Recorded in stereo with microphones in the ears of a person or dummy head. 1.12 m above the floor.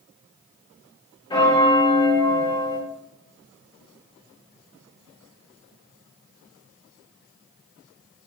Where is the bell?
15° left (ahead or behind), 1.8 m.